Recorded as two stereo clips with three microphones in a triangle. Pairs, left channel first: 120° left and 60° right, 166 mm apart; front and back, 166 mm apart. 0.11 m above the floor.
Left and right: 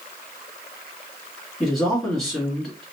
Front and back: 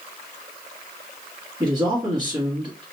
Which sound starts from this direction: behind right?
A man speaking, at 1.6 s.